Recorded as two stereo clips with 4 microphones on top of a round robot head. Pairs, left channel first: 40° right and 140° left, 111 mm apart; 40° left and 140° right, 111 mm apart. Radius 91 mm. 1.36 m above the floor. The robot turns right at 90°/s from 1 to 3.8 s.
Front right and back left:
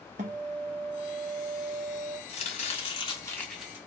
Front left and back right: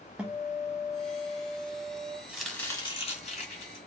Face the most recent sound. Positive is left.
turn(degrees=75)